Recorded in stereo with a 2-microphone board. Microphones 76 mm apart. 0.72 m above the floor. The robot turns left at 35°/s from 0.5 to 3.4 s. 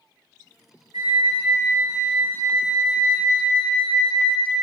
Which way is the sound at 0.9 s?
80° right.